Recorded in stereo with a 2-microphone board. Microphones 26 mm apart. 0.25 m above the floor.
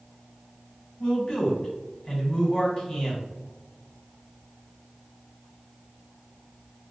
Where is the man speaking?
40° left (ahead or behind), 1.8 m.